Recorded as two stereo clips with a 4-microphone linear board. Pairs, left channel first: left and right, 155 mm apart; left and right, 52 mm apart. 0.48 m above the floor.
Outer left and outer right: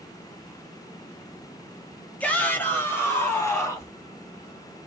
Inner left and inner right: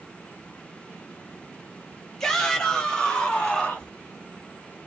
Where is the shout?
10° left (ahead or behind), 1.3 m; by 3.9 s 20° left (ahead or behind), 2.5 m.